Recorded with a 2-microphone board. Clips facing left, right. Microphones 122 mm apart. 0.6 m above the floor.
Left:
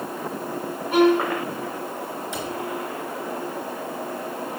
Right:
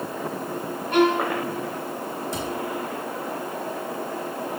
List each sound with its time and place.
0.9 s a violin: 5° left (ahead or behind), 3.5 m
2.3 s a cupboard door: 35° right (ahead or behind), 2.5 m